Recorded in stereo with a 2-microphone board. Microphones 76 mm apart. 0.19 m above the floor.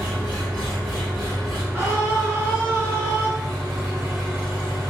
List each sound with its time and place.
0.0 s an engine running: 5° right (ahead or behind), 1.8 m
1.7 s a scream: 30° right (ahead or behind), 1.1 m